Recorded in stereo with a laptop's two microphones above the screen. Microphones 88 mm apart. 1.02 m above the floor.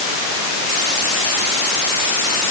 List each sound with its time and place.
Only background noise.